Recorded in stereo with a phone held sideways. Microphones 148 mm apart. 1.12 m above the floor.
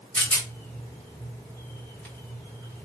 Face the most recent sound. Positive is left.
turn(degrees=10)  # may be behind; listen again after turning